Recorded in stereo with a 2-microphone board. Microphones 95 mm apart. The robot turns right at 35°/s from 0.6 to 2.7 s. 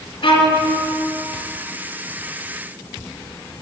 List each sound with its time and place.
0.2 s a violin: 60° left (ahead or behind), 1.1 m